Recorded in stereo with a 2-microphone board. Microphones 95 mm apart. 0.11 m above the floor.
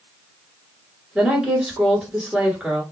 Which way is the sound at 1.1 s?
10° right (ahead or behind).